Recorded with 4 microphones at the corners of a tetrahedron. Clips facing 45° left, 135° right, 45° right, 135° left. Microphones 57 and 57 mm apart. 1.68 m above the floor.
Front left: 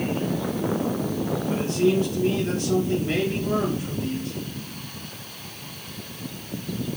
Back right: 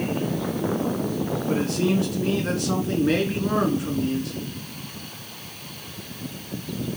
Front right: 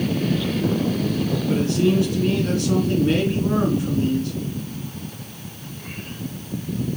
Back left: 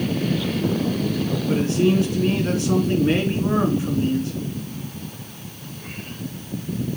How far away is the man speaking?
About 3 m.